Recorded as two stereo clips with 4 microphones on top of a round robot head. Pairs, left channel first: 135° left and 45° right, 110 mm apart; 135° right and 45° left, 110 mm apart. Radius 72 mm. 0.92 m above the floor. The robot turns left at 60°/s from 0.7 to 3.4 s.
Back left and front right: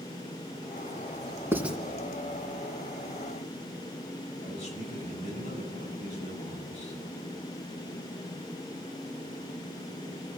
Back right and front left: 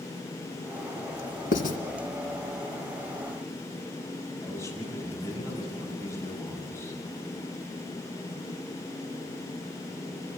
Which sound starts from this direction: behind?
A man speaking, at 4.4 s.